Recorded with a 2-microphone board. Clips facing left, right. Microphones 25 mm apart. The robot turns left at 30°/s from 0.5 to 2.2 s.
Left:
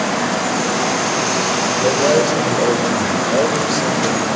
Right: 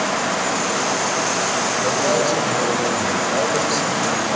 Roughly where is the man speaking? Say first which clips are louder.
Left 5 dB; left.